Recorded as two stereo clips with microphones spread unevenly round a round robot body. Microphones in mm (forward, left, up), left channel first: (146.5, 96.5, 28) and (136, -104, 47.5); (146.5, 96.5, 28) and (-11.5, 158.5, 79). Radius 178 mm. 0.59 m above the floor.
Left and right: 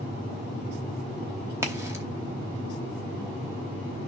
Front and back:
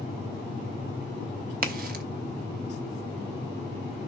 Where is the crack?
170° right, 0.8 m.